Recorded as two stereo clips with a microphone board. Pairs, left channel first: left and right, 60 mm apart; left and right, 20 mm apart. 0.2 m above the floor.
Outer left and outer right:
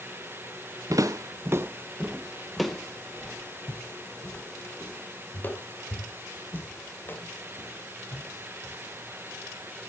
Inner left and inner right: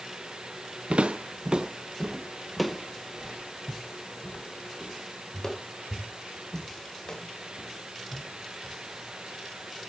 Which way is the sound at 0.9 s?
70° right (ahead or behind).